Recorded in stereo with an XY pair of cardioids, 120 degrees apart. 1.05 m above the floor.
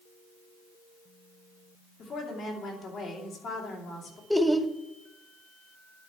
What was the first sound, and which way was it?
A woman speaking, 50° left.